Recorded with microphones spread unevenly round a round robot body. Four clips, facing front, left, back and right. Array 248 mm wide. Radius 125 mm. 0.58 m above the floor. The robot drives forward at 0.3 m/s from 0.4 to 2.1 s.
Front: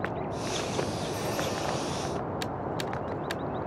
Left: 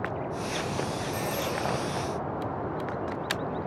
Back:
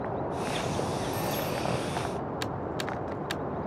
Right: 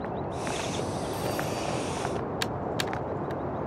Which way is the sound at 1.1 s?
175° right.